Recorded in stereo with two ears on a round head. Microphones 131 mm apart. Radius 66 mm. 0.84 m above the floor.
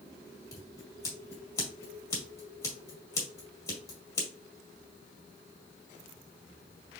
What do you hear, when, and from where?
0.5 s scissors: 20° left (ahead or behind), 1.9 m